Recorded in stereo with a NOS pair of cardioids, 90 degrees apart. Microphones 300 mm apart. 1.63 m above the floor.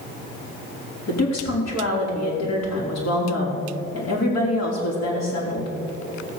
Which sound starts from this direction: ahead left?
A woman speaking, at 1.1 s.